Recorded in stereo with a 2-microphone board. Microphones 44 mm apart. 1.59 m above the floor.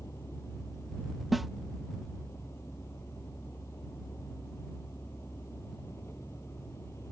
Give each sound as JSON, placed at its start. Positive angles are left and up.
{"t": 0.0, "sound": "a vehicle", "side_deg": 80}
{"t": 1.3, "sound": "a snare drum", "side_deg": -5}